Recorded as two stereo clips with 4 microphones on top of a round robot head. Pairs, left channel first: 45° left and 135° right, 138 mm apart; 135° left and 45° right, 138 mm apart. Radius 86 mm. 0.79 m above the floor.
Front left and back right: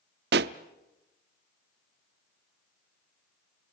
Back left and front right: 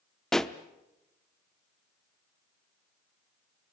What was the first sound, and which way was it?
A pop, 140° right.